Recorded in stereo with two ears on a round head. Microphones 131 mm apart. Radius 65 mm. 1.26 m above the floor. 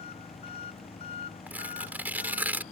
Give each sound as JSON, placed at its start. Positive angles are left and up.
{"t": 0.0, "sound": "an engine running", "side_deg": 40}
{"t": 1.5, "sound": "tearing paper", "side_deg": -15}